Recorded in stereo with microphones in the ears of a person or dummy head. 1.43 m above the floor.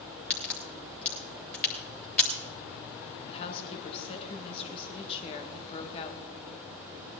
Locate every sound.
0.3 s a crack: 10° left (ahead or behind), 3 m
3.3 s a woman speaking: 35° left (ahead or behind), 1.9 m